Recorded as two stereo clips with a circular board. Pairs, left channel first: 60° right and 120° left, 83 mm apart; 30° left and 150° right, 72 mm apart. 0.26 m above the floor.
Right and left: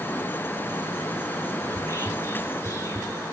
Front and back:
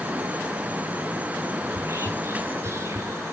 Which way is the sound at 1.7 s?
105° right.